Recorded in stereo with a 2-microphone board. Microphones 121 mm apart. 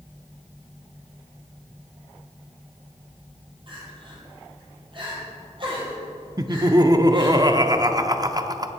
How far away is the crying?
About 3.5 m.